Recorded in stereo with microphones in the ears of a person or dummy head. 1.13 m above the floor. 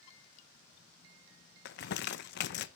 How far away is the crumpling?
About 0.7 m.